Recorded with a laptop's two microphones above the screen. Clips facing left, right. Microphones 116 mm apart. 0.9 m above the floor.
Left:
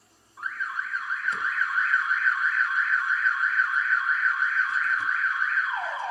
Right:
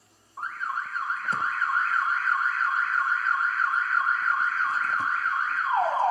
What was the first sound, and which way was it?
An alarm, 40° right (ahead or behind).